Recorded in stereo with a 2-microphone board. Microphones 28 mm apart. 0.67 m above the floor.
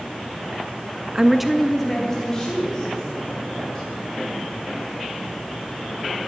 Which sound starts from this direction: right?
A woman speaking, at 1.1 s.